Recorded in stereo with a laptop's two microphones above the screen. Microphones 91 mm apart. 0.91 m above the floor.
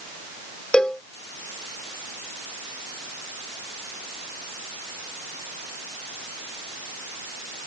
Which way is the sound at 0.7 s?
10° left (ahead or behind).